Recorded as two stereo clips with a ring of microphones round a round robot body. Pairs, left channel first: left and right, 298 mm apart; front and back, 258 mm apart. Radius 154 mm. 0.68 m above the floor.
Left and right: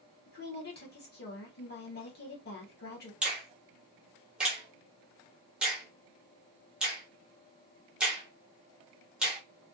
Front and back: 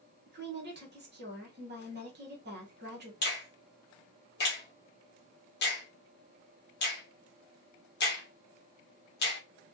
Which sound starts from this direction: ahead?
A finger snap, at 3.2 s.